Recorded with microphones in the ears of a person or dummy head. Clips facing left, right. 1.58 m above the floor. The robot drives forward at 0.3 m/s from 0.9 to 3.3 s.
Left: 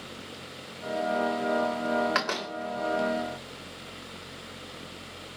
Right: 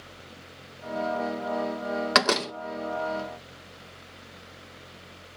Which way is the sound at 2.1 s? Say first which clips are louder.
Right 6 dB; 55° right (ahead or behind).